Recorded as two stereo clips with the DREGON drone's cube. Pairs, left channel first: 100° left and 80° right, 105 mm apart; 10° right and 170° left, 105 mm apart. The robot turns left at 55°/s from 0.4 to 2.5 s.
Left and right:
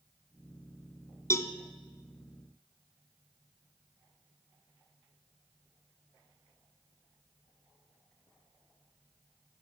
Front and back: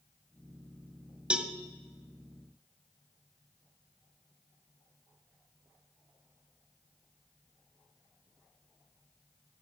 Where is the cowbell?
100° left, 1.0 m; by 1.5 s 90° left, 1.0 m.